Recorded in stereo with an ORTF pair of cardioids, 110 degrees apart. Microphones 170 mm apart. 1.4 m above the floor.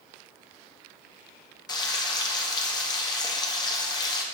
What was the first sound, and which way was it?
Frying, 25° left.